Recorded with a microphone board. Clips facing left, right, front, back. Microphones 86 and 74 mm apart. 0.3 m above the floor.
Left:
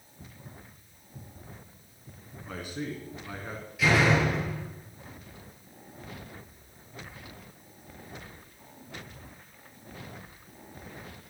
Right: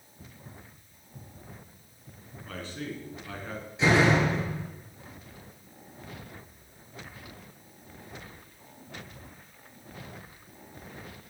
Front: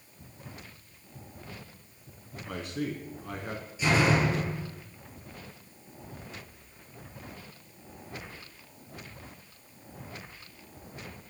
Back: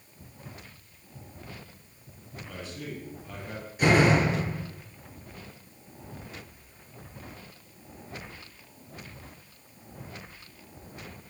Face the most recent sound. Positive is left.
turn(degrees=-150)